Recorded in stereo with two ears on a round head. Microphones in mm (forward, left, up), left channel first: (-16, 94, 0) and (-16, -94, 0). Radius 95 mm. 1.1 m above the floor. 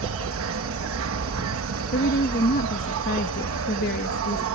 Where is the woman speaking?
45° left (ahead or behind).